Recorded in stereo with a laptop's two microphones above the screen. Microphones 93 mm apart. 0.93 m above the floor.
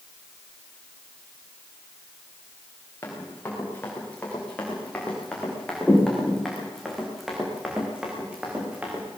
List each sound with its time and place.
3.0 s running footsteps: 25° left (ahead or behind), 5.5 m; by 9.1 s 15° right (ahead or behind), 4.5 m